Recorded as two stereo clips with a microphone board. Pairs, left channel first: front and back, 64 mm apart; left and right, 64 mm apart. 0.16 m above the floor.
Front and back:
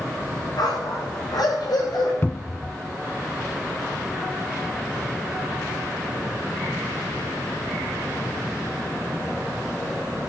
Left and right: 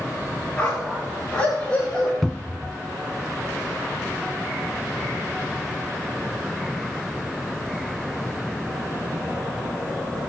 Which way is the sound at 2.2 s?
5° left.